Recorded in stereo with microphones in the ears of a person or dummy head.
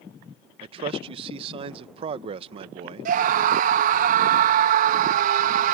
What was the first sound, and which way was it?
A man speaking, 30° right (ahead or behind).